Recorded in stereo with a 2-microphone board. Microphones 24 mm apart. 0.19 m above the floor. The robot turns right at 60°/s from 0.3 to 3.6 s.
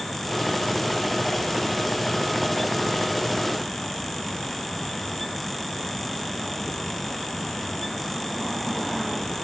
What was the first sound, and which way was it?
Only background noise.